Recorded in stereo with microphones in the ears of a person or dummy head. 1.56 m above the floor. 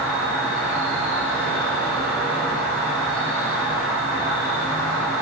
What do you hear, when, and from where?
0.0 s an insect: 25° right (ahead or behind), 0.9 m